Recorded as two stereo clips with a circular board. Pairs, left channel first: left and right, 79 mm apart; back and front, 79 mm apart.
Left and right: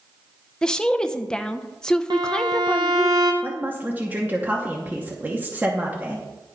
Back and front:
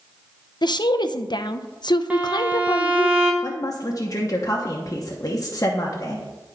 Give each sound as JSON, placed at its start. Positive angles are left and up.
{"t": 0.6, "sound": "a woman speaking", "azimuth_deg": 170, "distance_m": 0.5}
{"t": 2.1, "sound": "a violin", "azimuth_deg": -70, "distance_m": 1.0}
{"t": 3.4, "sound": "a woman speaking", "azimuth_deg": -150, "distance_m": 0.9}